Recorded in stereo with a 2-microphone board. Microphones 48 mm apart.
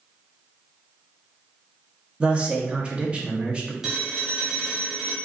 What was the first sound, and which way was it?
A man speaking, 25° right (ahead or behind).